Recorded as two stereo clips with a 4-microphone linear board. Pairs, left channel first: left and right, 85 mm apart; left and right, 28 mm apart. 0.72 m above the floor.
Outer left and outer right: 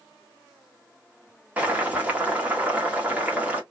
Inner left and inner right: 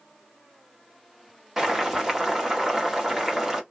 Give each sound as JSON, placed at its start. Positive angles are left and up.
{"t": 1.6, "sound": "boiling", "side_deg": -20, "distance_m": 1.5}